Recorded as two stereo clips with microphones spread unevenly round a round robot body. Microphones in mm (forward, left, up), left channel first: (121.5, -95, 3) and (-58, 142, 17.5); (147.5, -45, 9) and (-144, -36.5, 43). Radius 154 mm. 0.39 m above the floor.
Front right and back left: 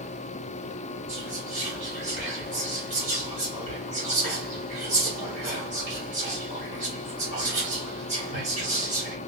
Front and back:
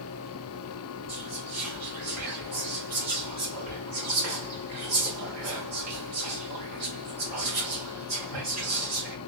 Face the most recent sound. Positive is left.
turn(degrees=-170)